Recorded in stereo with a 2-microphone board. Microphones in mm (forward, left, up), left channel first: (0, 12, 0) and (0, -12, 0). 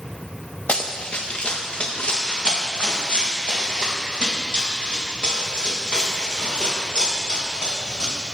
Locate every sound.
0.7 s running footsteps: 70° left (ahead or behind), 1.0 m; by 8.1 s 45° left (ahead or behind), 6 m